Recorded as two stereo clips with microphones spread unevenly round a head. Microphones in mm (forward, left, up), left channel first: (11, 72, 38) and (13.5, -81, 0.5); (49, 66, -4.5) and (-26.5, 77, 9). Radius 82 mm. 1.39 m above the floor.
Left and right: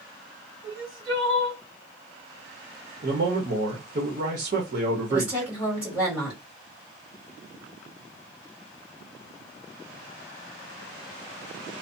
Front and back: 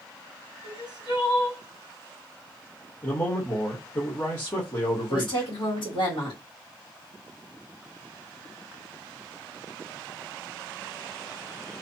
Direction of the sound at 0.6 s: 20° right.